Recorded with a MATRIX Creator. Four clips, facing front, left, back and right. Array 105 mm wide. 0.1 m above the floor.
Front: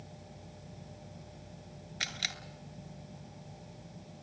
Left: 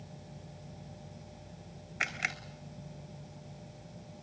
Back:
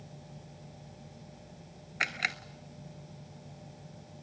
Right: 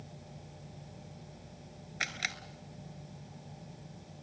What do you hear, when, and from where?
2.0 s a camera shutter: 165° left, 1.1 m